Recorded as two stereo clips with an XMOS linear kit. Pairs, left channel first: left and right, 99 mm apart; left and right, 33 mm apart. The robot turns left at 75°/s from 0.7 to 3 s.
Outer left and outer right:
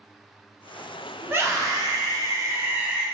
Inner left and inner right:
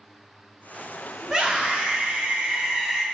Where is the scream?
30° right, 0.8 m; by 3.0 s 165° right, 0.8 m.